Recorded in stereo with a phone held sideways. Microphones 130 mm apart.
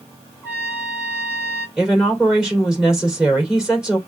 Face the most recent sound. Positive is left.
turn(degrees=-5)  # may be behind; listen again after turning